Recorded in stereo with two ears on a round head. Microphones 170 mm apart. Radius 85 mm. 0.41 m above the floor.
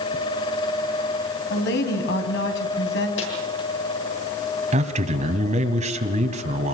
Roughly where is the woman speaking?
Left.